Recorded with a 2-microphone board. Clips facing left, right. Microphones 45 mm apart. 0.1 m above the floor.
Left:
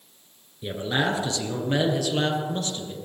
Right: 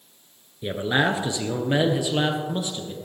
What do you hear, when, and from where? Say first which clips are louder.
0.6 s a man speaking: right 3 dB; 20° right (ahead or behind), 1.3 m; by 2.9 s 15° right (ahead or behind), 2.5 m